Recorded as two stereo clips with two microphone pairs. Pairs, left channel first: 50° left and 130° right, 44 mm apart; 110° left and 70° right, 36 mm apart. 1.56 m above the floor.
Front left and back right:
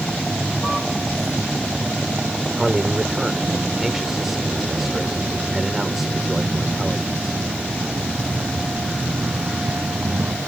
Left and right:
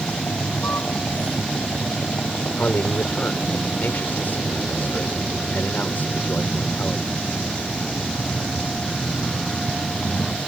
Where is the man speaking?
145° left.